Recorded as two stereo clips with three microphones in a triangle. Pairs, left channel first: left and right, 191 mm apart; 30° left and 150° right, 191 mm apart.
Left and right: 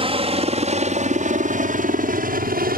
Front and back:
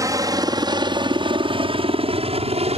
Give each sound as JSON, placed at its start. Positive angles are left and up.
{"t": 0.0, "sound": "a helicopter", "azimuth_deg": -100}